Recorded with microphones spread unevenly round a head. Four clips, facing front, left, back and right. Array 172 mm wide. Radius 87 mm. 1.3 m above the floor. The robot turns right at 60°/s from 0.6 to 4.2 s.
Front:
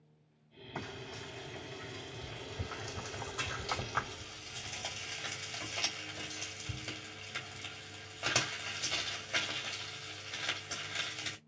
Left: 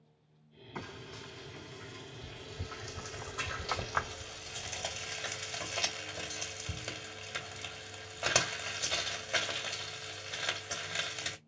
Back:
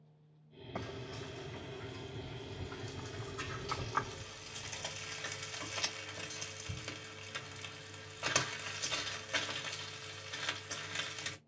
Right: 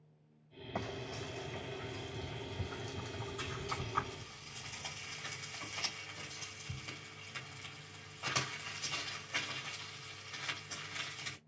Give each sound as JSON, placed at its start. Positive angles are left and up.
{"t": 0.8, "sound": "frying", "azimuth_deg": -115, "distance_m": 2.5}